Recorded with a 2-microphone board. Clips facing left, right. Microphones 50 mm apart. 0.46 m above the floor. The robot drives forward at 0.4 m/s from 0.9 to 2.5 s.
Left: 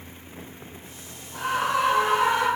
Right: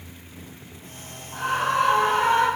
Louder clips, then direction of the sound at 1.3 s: Right 2 dB; 30° right (ahead or behind).